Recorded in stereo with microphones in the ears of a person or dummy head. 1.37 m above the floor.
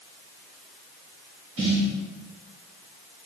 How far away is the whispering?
No whispering in this recording.